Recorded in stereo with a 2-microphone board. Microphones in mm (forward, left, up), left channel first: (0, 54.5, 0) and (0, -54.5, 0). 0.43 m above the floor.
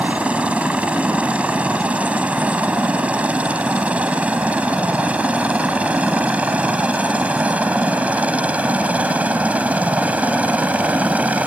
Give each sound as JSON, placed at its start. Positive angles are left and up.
{"t": 0.0, "sound": "a helicopter", "side_deg": -10}